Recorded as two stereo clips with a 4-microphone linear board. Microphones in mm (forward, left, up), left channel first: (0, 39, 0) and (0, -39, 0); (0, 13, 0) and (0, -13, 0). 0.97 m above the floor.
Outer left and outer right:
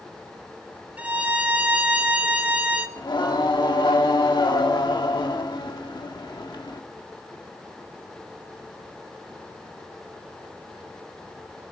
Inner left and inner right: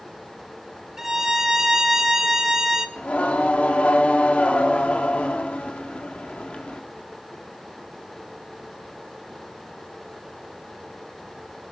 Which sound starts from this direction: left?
Singing, at 3.0 s.